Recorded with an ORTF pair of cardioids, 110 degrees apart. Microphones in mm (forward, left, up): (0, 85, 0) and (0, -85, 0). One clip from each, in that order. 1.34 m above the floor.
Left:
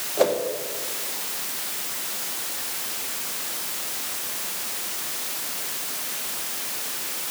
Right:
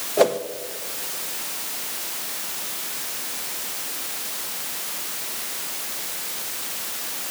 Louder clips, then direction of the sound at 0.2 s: Right 3 dB; 40° right.